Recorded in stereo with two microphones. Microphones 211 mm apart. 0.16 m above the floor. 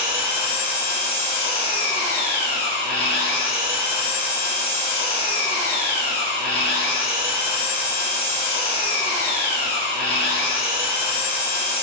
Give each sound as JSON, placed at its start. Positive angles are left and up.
{"t": 0.0, "sound": "an engine running", "side_deg": 30, "distance_m": 1.5}